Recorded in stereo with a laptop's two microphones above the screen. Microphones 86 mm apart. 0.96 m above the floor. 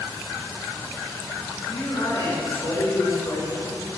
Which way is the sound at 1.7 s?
55° left (ahead or behind).